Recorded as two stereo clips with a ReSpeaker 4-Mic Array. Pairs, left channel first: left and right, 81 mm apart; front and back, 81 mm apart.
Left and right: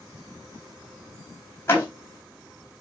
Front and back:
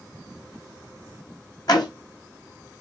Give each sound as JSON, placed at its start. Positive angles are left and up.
{"t": 1.7, "sound": "a door slam", "azimuth_deg": 30, "distance_m": 3.5}